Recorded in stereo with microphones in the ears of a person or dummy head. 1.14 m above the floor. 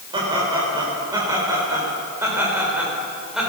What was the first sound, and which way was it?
Laughter, 25° right (ahead or behind).